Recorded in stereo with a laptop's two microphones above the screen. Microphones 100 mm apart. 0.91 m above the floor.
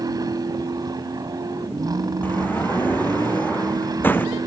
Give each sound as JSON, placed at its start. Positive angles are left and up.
{"t": 0.0, "sound": "a vehicle", "side_deg": -40}
{"t": 2.2, "sound": "a sliding door", "side_deg": 20}